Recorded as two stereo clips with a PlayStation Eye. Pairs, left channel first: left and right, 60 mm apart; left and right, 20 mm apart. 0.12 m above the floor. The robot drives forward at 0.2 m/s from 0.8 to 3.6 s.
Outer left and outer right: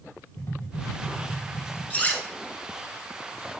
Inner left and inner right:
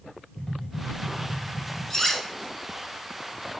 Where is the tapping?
55° left (ahead or behind), 2.5 m; by 1.8 s 50° left (ahead or behind), 2.5 m.